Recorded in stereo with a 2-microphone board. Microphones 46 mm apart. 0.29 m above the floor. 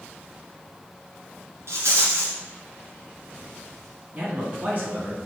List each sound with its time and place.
1.7 s a rattle: 75° right (ahead or behind), 2.5 m
4.1 s a man speaking: 40° right (ahead or behind), 3.5 m